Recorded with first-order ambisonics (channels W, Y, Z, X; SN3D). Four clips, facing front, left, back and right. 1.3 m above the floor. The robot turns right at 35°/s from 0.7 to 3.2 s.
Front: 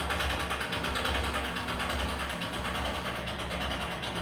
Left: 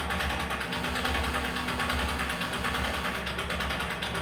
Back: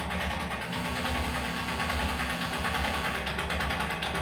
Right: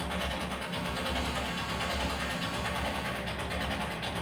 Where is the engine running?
40° left, 2.5 m; by 4.2 s 130° left, 2.5 m.